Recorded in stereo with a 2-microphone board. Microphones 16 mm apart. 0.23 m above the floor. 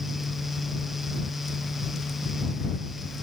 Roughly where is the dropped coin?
I don't hear a dropped coin.